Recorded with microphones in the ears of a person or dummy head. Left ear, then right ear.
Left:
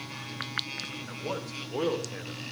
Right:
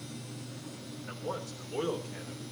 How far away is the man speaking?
About 3 m.